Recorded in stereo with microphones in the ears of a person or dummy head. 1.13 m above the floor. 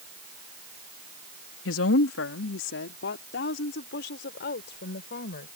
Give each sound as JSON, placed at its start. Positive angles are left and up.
{"t": 1.6, "sound": "a woman speaking", "side_deg": 80}